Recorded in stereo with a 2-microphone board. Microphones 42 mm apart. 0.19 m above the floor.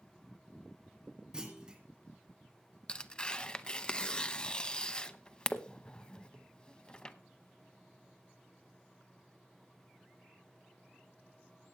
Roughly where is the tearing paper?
Centre.